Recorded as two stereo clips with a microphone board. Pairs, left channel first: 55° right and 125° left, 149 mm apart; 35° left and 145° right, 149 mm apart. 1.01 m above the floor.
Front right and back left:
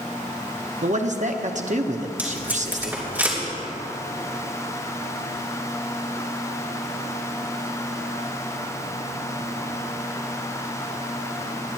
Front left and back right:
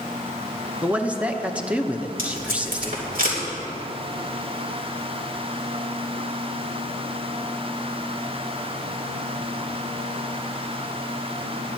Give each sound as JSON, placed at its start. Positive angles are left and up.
{"t": 0.8, "sound": "a man speaking", "azimuth_deg": 135, "distance_m": 0.9}
{"t": 2.2, "sound": "tape being pulled", "azimuth_deg": -160, "distance_m": 3.0}